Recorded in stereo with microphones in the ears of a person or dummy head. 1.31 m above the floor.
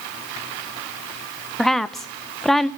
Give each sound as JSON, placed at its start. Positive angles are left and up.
{"t": 1.6, "sound": "a woman speaking", "side_deg": 5, "distance_m": 0.5}